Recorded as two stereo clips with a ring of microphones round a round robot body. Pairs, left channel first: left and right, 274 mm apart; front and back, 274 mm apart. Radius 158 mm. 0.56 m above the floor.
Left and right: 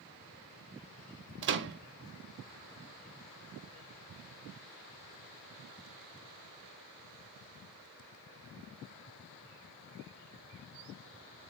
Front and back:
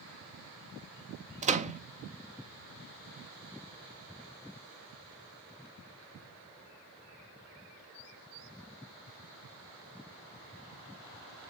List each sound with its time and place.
1.4 s a microwave: 120° right, 0.7 m